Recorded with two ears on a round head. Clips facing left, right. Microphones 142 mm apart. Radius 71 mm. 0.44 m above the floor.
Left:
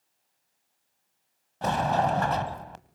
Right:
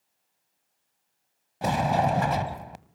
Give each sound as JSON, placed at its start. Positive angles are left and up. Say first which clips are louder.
{"t": 1.6, "sound": "a sliding door", "louder": "right 1 dB", "side_deg": -10, "distance_m": 1.1}